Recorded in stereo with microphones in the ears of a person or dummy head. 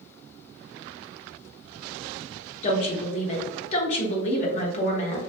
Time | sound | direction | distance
2.6 | a woman speaking | 40° left (ahead or behind) | 0.6 m